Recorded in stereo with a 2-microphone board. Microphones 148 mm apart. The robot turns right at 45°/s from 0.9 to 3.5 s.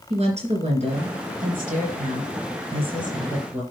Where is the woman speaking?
130° right, 3 m; by 3.6 s 10° right, 3 m.